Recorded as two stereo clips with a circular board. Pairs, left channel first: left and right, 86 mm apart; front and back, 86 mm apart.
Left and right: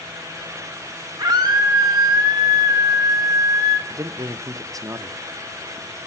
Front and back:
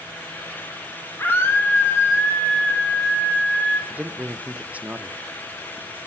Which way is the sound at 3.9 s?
115° right.